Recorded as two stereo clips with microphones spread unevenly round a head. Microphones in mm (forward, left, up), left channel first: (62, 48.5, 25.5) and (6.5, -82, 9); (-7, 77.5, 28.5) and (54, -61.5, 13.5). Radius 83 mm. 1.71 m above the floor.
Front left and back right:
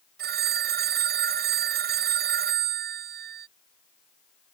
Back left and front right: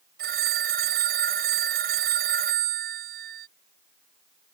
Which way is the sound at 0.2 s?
105° right.